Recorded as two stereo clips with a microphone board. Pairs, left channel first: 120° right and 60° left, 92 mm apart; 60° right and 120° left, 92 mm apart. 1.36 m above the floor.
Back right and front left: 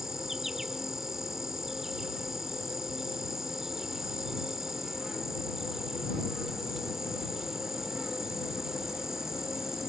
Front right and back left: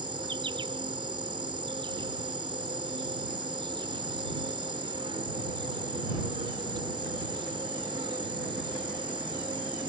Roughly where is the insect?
Behind left.